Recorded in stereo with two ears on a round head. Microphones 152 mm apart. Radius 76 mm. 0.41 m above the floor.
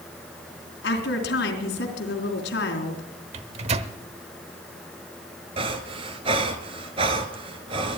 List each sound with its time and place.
0.8 s a woman speaking: 70° left (ahead or behind), 3.5 m
3.3 s a microwave: 40° right (ahead or behind), 0.9 m
5.6 s breathing: 35° right (ahead or behind), 1.3 m